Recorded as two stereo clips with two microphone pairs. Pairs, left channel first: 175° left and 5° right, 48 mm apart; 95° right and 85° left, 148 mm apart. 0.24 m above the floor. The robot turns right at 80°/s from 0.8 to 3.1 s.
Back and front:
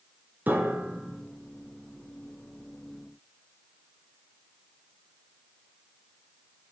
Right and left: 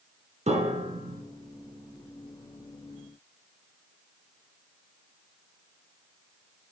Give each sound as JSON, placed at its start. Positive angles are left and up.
{"t": 0.5, "sound": "a piano", "azimuth_deg": 45, "distance_m": 1.0}